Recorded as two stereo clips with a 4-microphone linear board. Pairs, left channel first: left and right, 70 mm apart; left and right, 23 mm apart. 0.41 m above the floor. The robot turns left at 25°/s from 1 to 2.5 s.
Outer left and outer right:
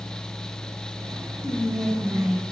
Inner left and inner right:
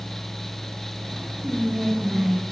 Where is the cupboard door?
No cupboard door in this recording.